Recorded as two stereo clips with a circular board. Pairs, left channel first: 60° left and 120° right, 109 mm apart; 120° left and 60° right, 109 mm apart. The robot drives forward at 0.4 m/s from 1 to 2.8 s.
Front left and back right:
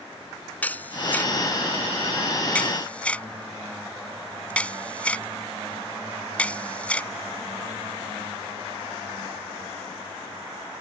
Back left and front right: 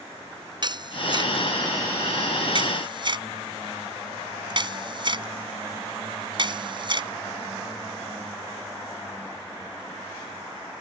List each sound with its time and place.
0.6 s a camera shutter: 15° right